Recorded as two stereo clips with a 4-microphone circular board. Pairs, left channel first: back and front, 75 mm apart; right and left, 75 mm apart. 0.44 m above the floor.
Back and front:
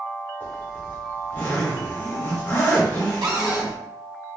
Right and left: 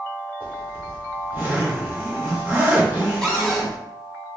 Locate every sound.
0.4 s a zipper: 140° left, 1.5 m
3.2 s a cupboard door: 5° right, 1.2 m